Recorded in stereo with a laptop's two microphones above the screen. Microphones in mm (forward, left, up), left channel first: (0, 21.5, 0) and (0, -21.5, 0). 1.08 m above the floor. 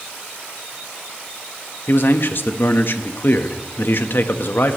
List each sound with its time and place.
1.9 s a man speaking: 55° left (ahead or behind), 1.2 m